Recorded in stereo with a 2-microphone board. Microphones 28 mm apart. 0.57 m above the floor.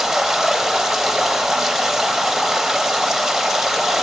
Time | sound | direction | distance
0.0 | running water | 10° right (ahead or behind) | 0.7 m